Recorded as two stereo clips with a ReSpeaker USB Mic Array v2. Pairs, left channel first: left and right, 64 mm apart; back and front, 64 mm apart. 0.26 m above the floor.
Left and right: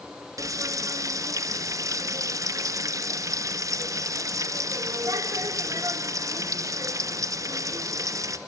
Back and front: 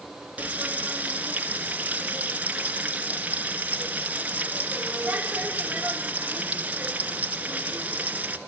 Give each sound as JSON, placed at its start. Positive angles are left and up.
{"t": 0.4, "sound": "frying", "azimuth_deg": -70, "distance_m": 2.0}